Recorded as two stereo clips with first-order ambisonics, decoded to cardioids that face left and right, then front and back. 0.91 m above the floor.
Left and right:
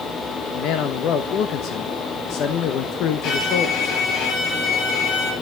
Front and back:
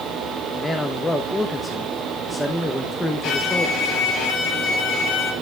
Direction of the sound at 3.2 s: 50° left.